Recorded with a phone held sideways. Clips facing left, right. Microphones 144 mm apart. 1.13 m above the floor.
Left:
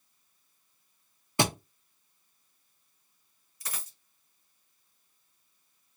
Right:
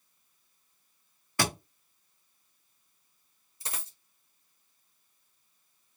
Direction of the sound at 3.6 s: 30° right (ahead or behind).